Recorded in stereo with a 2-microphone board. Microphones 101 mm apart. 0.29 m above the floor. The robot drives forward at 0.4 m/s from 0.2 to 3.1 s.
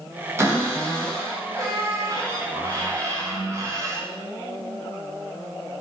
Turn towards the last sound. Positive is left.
turn(degrees=-30)  # may be behind; listen again after turning